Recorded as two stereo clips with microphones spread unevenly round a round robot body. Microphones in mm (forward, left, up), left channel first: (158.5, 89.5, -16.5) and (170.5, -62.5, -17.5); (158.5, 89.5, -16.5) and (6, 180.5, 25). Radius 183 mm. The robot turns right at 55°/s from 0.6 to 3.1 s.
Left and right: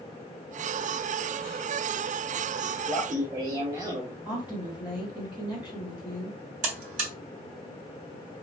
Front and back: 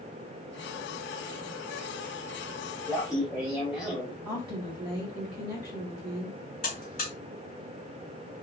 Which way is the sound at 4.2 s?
165° right.